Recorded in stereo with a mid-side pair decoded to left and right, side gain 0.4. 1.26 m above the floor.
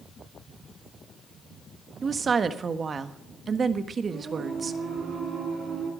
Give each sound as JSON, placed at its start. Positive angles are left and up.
{"t": 2.0, "sound": "a woman speaking", "azimuth_deg": -45, "distance_m": 1.4}
{"t": 4.1, "sound": "singing", "azimuth_deg": -65, "distance_m": 6.5}